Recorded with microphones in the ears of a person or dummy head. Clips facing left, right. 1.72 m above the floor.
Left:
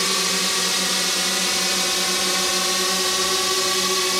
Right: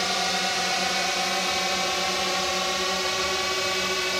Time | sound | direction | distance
0.0 | a drone | 70° left (ahead or behind) | ?